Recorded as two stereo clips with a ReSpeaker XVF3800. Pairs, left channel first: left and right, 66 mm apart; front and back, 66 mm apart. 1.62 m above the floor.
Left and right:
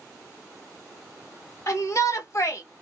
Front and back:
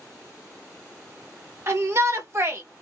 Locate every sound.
1.7 s a shout: 130° left, 1.7 m